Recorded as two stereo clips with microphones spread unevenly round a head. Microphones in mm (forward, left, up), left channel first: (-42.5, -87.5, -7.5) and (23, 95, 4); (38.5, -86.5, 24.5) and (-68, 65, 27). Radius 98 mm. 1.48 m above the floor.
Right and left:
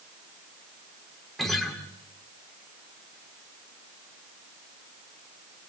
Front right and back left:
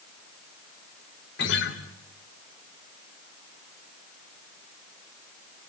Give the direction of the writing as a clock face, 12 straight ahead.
I don't hear writing.